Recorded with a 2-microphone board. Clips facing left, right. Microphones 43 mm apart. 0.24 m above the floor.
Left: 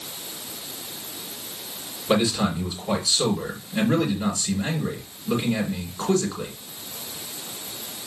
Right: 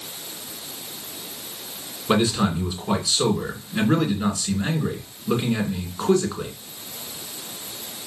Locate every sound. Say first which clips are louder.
2.1 s a man speaking: right 1 dB; 20° right (ahead or behind), 2.5 m